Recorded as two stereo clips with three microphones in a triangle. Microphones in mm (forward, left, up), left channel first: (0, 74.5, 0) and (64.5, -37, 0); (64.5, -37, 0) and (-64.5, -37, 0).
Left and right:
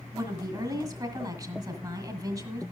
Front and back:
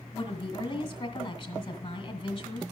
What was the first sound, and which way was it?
A woman speaking, 20° right.